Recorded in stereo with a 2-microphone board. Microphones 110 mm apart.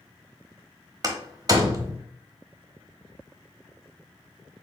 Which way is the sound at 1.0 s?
35° right (ahead or behind).